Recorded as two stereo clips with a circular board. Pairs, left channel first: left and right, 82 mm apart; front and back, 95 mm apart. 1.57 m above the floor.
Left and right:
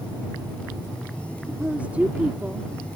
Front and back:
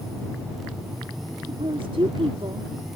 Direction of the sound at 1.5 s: 160° right.